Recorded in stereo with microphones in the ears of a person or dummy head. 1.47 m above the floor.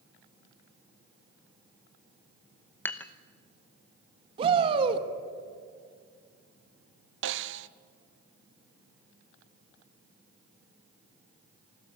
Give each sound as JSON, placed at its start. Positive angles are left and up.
{"t": 2.9, "sound": "dishes clattering", "side_deg": 10, "distance_m": 0.9}
{"t": 4.4, "sound": "a shout", "side_deg": -25, "distance_m": 1.7}
{"t": 7.2, "sound": "a snare drum", "side_deg": -65, "distance_m": 0.7}